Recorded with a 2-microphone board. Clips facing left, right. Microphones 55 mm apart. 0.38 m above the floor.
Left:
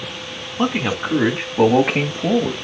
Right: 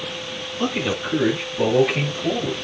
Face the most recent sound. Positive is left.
turn(degrees=60)  # may be behind; listen again after turning